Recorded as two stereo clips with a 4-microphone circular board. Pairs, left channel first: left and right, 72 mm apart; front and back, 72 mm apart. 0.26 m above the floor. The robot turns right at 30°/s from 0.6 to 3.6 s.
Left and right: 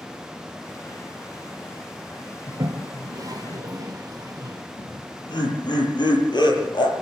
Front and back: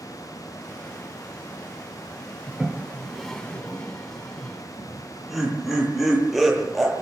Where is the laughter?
90° left, 7.5 m.